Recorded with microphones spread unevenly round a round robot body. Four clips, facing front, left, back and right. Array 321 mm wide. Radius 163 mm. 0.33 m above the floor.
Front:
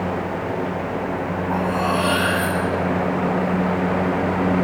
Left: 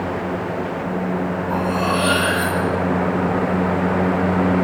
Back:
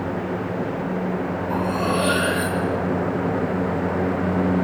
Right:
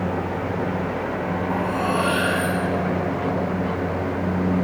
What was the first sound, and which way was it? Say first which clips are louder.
Cutlery clinking: left 3 dB, front 2 dB; 175° left.